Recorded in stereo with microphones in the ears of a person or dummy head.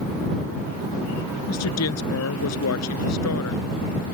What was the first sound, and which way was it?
A woman speaking, 90° left.